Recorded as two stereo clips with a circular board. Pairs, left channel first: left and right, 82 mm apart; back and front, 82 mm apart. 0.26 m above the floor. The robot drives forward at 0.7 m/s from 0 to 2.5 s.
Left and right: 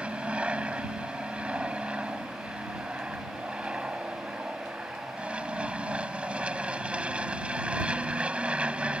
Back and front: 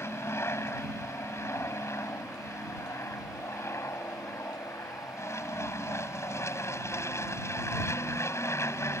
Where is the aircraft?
155° right.